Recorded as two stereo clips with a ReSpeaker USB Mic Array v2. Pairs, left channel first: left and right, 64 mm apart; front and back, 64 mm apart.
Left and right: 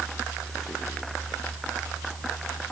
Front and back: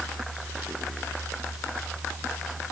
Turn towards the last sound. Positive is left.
No sound to turn to.